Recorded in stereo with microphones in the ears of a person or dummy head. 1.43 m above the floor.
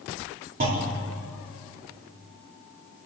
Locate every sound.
0.6 s a clunk: 45° right (ahead or behind), 4 m